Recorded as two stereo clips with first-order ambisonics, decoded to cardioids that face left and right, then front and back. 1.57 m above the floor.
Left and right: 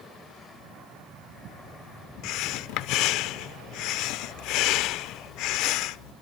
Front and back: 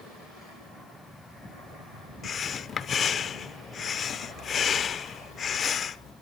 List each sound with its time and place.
2.2 s breathing: 65° left, 0.6 m